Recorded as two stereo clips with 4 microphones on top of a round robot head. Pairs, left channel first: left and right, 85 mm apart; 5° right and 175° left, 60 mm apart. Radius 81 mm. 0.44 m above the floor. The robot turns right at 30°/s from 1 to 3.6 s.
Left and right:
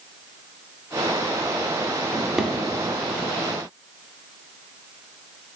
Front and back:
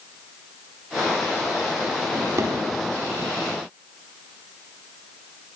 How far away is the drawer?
About 0.8 m.